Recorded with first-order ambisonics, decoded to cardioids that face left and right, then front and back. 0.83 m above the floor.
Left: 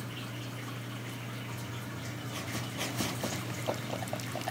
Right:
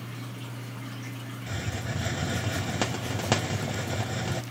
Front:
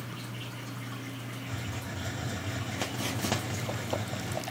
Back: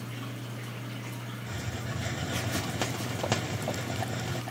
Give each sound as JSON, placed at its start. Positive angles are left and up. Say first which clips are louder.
{"t": 1.5, "sound": "a hiss", "louder": "right 7 dB, back 2 dB", "azimuth_deg": -100, "distance_m": 0.5}